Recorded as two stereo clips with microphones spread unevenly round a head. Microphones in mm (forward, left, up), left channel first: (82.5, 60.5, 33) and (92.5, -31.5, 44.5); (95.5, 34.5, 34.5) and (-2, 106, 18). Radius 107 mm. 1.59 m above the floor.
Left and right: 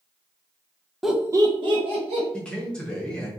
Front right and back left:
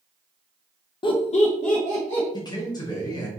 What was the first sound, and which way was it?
Laughter, straight ahead.